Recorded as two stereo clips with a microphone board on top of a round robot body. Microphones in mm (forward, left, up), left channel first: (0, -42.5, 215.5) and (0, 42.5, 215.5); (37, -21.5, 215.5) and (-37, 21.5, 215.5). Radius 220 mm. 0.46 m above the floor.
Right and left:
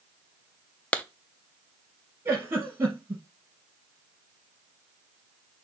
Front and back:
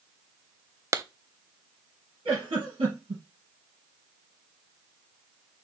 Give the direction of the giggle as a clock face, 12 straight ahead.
7 o'clock.